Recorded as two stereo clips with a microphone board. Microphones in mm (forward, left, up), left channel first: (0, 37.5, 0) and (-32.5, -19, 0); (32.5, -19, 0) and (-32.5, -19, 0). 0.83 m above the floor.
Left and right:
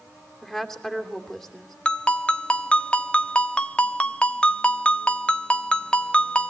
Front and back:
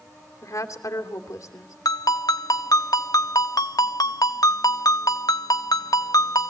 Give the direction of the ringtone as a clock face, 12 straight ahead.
12 o'clock.